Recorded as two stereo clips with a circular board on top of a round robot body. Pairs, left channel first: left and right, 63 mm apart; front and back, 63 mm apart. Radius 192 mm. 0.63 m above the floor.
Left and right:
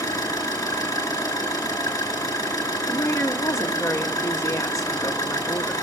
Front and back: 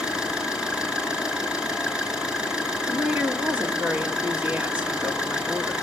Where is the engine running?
105° left, 4.5 m.